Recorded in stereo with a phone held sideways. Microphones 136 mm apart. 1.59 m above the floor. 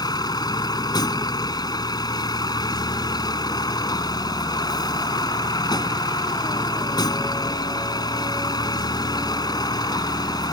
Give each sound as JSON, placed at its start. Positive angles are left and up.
{"t": 0.0, "sound": "a vehicle", "side_deg": 30}